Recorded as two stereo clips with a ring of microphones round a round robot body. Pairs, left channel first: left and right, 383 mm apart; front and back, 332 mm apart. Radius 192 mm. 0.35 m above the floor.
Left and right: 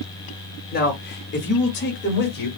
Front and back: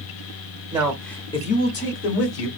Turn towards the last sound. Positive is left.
turn(degrees=30)